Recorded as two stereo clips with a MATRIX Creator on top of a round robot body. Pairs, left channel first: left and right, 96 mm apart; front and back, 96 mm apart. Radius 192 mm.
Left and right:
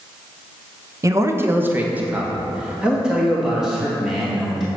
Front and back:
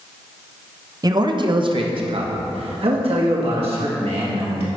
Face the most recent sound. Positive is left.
turn(degrees=180)